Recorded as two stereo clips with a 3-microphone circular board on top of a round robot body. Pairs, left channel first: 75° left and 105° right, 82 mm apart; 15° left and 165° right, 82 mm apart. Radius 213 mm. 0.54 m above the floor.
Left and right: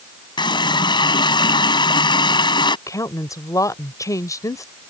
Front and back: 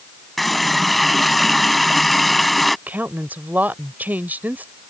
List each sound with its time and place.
0.4 s a running tap: 105° left
2.9 s a woman speaking: 125° left